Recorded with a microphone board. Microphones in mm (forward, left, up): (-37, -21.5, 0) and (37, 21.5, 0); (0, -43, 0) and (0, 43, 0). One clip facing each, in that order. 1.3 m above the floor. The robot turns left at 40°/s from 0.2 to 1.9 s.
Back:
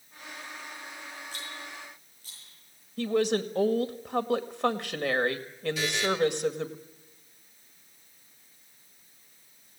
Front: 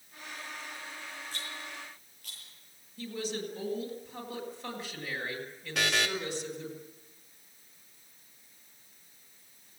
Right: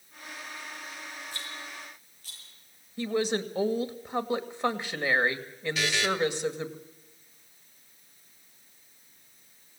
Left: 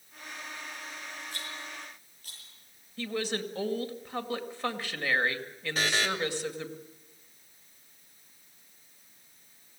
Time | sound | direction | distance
1.3 | a rattle | 75° left | 9.5 m
3.0 | a woman speaking | 160° right | 2 m
5.8 | a buzzer | 45° left | 2.5 m